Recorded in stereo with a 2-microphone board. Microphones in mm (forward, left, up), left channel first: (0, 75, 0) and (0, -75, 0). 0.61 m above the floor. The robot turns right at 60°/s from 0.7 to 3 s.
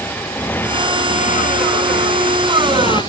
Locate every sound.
0.0 s a motorcycle: 10° left (ahead or behind); by 3.1 s 30° left (ahead or behind)